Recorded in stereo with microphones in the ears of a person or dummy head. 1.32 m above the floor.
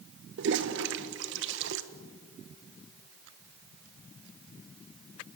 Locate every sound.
0.4 s a toilet flushing: 75° right (ahead or behind), 1.2 m